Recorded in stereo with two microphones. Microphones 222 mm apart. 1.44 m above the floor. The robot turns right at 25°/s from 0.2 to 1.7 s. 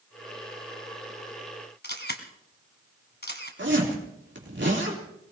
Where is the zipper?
55° right (ahead or behind), 3.5 m.